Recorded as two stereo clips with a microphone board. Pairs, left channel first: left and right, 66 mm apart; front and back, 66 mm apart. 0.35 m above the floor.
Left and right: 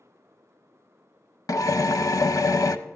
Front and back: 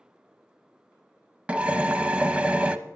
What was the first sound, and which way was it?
A drill, 110° left.